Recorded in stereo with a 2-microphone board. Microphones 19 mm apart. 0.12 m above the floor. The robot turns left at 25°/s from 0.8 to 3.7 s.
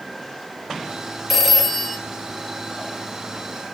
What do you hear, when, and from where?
1.3 s a phone ringing: 5° right (ahead or behind), 2.0 m; by 2.0 s 20° right (ahead or behind), 2.0 m